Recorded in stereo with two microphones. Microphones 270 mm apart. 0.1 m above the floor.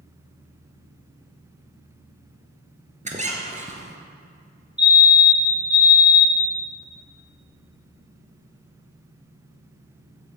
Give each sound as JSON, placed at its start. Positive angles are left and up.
{"t": 3.0, "sound": "a squeak", "side_deg": -25, "distance_m": 1.2}
{"t": 4.8, "sound": "a fire alarm", "side_deg": 15, "distance_m": 2.5}